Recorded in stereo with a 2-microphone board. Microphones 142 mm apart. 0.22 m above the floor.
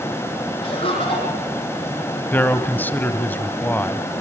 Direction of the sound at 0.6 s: 40° left (ahead or behind).